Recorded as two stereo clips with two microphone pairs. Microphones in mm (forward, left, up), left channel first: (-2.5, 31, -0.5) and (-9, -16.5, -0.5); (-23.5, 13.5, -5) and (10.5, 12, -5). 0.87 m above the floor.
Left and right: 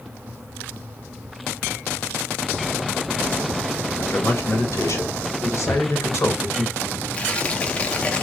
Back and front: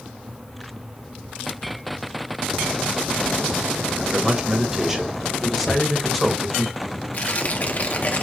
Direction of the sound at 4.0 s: 65° left.